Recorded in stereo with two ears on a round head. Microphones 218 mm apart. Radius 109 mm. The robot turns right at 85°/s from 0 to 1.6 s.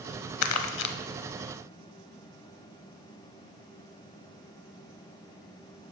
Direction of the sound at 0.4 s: 65° left (ahead or behind).